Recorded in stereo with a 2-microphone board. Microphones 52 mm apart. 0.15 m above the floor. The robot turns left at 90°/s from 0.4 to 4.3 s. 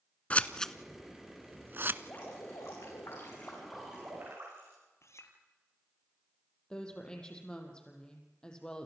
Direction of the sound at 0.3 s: 25° left (ahead or behind).